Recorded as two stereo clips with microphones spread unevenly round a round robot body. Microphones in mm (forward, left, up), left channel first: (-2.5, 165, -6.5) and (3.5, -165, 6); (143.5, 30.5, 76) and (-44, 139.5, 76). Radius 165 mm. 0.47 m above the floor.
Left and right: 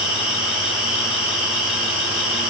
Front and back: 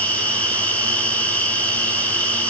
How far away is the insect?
About 7 m.